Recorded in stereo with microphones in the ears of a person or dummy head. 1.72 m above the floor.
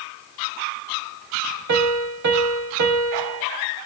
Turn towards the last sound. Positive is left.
turn(degrees=-65)  # may be behind; listen again after turning